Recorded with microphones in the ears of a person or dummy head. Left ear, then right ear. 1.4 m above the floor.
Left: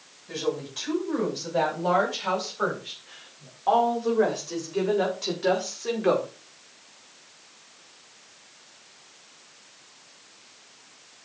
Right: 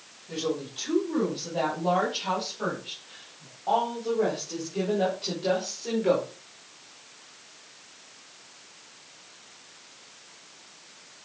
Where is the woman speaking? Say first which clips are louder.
Left 1 dB; 55° left (ahead or behind), 7 m; by 6.3 s 45° left (ahead or behind), 3 m.